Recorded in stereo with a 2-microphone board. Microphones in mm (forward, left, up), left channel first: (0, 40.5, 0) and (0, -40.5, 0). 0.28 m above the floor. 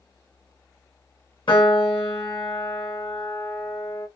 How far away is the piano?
About 1.9 m.